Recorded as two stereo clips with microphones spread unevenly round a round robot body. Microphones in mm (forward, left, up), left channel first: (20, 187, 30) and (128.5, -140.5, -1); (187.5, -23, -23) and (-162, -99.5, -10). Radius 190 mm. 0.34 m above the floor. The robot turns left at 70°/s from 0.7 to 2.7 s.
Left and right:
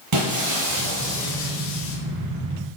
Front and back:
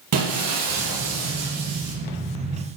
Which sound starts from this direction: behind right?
Breaking glass, at 0.1 s.